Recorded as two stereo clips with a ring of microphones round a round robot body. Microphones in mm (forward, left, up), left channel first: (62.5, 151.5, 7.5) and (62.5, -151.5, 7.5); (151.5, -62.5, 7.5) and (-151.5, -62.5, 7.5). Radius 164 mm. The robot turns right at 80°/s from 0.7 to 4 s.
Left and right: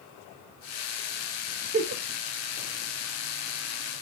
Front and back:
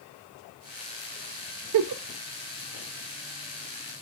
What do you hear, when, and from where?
1.7 s a giggle: 160° right, 0.8 m; by 2.0 s 140° right, 0.8 m